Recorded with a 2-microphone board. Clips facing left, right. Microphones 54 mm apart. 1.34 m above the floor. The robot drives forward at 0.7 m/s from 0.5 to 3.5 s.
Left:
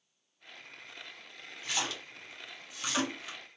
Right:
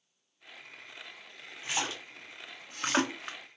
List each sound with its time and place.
1.6 s a splash: 20° right (ahead or behind), 1.3 m; by 3.4 s 50° right (ahead or behind), 0.6 m